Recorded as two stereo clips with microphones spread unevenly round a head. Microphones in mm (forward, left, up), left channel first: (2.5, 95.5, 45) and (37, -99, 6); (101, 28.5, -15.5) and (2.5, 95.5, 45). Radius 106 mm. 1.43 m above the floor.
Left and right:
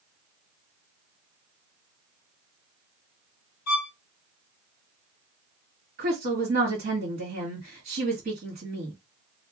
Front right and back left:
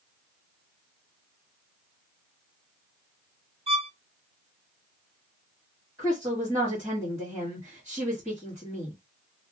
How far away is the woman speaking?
About 2 m.